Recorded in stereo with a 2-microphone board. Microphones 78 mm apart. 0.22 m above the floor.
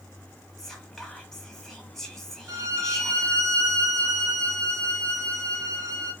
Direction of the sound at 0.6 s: 5° left (ahead or behind).